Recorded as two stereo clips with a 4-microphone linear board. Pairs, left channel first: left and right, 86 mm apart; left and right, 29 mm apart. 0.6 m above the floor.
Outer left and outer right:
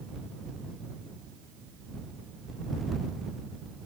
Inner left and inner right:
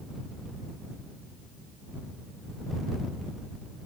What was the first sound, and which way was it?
Only background noise.